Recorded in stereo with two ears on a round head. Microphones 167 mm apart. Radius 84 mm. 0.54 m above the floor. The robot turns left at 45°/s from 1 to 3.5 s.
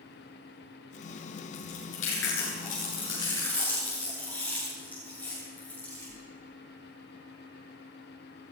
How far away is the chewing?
About 9.5 m.